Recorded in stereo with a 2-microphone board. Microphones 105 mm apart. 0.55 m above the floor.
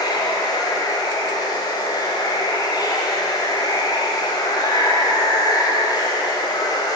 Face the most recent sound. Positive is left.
turn(degrees=40)  # may be behind; listen again after turning